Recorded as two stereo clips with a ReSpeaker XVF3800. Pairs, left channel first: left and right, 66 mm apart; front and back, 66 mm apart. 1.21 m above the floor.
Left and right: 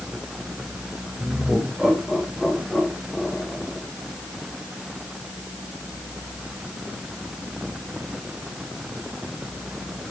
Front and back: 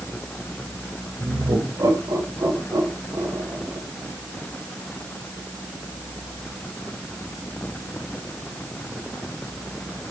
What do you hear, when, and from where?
1.2 s laughter: 170° right, 5 m; by 3.8 s 165° left, 4 m